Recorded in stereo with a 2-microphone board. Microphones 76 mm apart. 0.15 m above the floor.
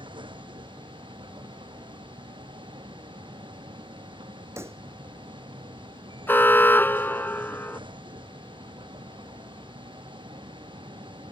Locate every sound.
0.0 s a vehicle: 80° right
4.6 s a pop: 30° right (ahead or behind)
6.3 s an alarm: 25° left (ahead or behind)